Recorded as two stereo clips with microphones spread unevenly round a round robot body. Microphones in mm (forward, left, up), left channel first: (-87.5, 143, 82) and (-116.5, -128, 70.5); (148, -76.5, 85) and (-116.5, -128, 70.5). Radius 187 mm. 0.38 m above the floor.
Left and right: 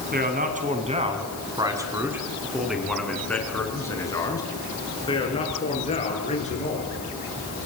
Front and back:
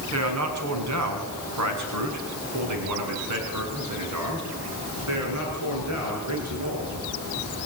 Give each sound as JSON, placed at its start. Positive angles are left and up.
{"t": 0.1, "sound": "a man speaking", "azimuth_deg": -150, "distance_m": 5.0}